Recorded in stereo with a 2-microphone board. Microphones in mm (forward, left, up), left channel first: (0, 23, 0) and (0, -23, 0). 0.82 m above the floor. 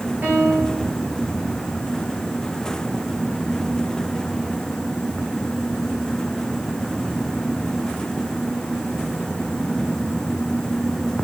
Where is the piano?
40° right (ahead or behind), 5.5 m.